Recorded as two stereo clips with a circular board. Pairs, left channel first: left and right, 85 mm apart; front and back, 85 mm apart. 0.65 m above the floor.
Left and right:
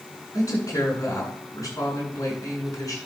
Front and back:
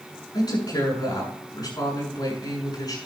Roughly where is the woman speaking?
Ahead left.